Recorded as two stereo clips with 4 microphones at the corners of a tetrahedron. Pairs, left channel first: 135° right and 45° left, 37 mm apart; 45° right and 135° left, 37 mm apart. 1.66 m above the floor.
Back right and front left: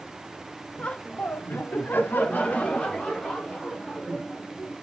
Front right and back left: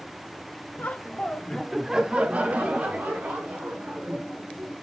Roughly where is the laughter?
Right.